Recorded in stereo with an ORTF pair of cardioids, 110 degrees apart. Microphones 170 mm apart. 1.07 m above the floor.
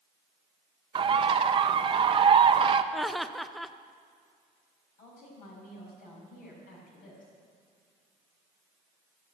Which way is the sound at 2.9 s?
Straight ahead.